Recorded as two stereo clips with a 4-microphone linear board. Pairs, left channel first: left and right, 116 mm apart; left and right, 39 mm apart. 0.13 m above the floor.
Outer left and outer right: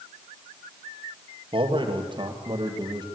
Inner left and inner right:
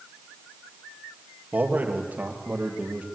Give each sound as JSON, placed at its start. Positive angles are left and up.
{"t": 1.5, "sound": "a man speaking", "side_deg": -50, "distance_m": 3.0}